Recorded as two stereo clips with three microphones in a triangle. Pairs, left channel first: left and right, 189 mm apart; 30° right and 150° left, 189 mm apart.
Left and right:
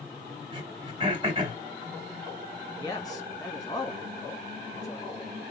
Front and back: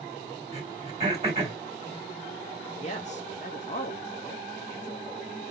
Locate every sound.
0.5 s throat clearing: 155° right, 2 m
2.8 s a man speaking: 20° left, 1.9 m